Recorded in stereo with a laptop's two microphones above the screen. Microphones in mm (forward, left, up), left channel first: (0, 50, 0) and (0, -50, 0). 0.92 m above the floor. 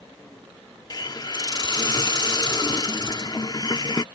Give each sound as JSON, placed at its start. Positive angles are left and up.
{"t": 0.9, "sound": "a hiss", "side_deg": 40}